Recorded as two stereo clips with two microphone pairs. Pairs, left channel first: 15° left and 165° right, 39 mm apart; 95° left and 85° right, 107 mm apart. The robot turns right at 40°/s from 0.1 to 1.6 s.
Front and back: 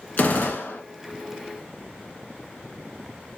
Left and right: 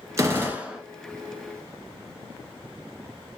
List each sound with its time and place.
0.2 s a gunshot: 25° right, 1.0 m; by 0.8 s straight ahead, 1.0 m